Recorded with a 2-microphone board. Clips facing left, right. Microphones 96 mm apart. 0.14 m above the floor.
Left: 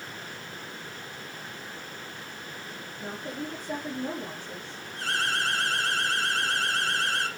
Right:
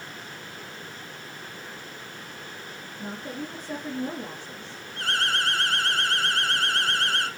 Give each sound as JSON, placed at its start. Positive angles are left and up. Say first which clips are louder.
{"t": 3.0, "sound": "a woman speaking", "louder": "right 1 dB", "side_deg": -5, "distance_m": 3.0}
{"t": 5.0, "sound": "an alarm", "louder": "right 2 dB", "side_deg": -55, "distance_m": 3.5}